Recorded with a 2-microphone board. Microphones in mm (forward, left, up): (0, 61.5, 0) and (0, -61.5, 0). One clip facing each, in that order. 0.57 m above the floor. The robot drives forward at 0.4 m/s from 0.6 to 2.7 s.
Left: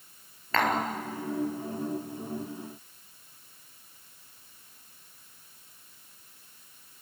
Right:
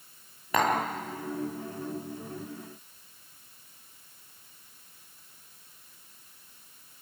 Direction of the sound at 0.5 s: 15° right (ahead or behind).